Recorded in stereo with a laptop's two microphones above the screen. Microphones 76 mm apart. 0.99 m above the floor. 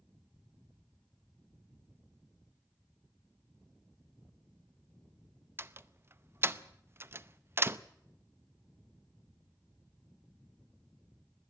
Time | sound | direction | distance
5.6 | a door slam | 35° right (ahead or behind) | 0.6 m